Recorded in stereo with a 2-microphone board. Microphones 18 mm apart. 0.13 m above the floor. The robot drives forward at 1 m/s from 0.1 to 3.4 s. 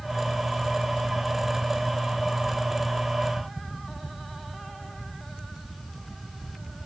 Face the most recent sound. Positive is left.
No sound to turn to.